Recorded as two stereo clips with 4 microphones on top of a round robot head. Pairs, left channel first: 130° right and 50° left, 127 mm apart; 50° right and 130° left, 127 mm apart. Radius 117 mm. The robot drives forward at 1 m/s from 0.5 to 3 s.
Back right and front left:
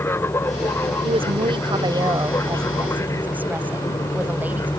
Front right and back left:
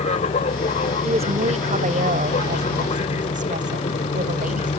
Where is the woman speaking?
90° left; by 4.7 s 130° left.